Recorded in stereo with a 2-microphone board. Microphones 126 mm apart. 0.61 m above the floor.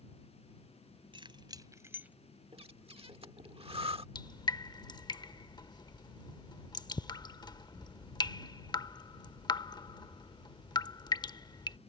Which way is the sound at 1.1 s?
45° right (ahead or behind).